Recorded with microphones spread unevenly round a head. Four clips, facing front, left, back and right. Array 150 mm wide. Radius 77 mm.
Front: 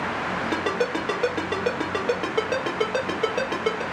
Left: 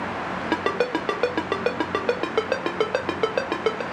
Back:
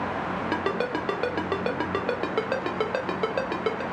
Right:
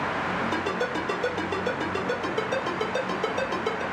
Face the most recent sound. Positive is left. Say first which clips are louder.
# left 4 dB, front 2 dB
turn(degrees=90)